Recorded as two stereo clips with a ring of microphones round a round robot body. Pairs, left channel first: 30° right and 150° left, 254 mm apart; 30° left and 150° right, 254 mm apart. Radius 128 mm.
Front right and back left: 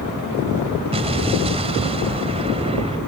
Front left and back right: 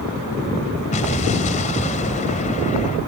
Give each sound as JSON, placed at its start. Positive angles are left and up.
{"t": 0.9, "sound": "an explosion", "azimuth_deg": 85}